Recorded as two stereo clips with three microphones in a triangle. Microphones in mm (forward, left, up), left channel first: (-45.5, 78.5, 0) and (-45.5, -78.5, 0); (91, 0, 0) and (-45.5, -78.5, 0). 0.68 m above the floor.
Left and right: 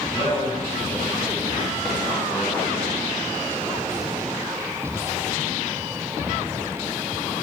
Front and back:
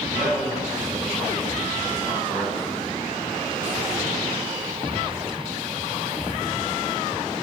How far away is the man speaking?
About 5 m.